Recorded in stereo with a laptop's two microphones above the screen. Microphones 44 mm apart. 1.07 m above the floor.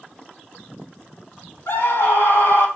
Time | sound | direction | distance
1.7 | a scream | 75° left (ahead or behind) | 4 m